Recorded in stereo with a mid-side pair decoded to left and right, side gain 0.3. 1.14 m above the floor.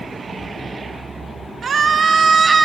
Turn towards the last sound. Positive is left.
turn(degrees=-45)